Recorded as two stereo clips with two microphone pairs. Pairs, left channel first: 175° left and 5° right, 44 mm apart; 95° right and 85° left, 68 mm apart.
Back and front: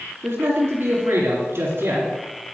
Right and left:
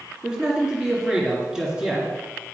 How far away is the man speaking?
About 3 m.